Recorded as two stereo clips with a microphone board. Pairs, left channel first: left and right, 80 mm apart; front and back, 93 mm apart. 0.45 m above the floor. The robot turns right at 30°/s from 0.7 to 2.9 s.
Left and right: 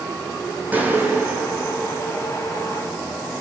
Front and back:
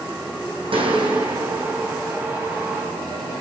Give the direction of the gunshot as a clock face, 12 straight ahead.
5 o'clock.